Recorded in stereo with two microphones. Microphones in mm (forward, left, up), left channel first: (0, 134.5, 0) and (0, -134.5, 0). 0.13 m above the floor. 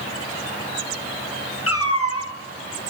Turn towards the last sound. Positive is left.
turn(degrees=65)  # may be behind; listen again after turning